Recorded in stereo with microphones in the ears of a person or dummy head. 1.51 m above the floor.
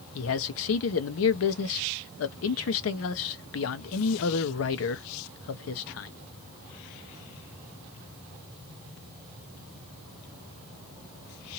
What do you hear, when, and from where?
0.1 s a man speaking: 70° left (ahead or behind), 0.6 m